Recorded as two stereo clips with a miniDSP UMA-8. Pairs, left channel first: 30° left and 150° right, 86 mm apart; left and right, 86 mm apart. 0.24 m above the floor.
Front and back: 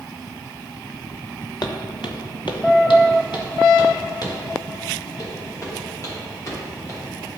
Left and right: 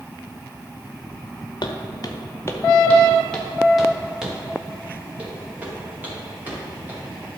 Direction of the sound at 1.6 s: 60° left.